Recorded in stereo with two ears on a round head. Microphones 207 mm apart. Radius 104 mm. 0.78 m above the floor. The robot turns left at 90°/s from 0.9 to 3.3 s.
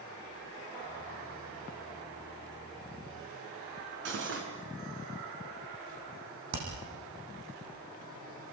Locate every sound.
4.0 s cutlery clinking: 55° right (ahead or behind), 5 m
6.5 s hammering: 85° right, 9.5 m